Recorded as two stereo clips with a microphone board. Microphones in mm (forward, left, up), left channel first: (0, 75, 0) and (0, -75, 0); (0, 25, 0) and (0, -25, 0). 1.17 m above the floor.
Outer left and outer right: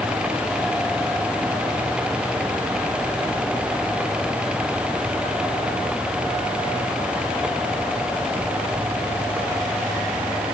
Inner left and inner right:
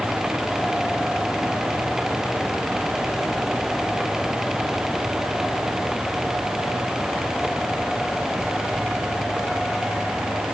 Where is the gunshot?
No gunshot in this recording.